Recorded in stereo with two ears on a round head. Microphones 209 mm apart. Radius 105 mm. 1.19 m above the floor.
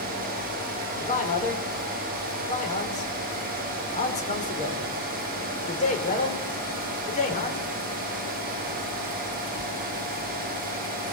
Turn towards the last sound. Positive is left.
turn(degrees=35)  # may be behind; listen again after turning